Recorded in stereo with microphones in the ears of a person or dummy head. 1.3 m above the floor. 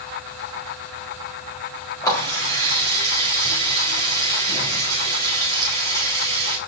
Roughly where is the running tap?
Left.